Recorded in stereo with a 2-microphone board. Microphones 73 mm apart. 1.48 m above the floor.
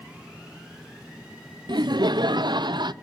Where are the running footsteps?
I don't hear running footsteps.